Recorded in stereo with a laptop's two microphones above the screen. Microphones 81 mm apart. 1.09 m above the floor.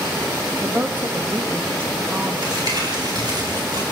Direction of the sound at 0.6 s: 25° right (ahead or behind).